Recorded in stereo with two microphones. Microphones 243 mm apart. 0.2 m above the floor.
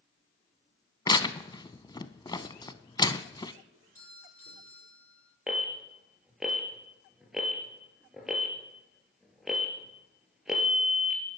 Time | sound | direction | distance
1.1 | tearing paper | 20° left (ahead or behind) | 0.6 m
3.7 | a doorbell | 65° right (ahead or behind) | 6.5 m
5.5 | an alarm | centre (ahead or behind) | 2.5 m